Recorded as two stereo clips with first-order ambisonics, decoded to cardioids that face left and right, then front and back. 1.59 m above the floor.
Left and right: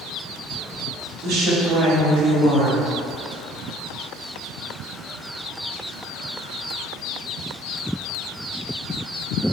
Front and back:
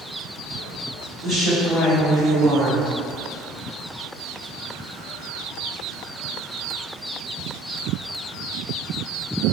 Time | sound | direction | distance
1.2 | a woman speaking | 120° right | 1.6 m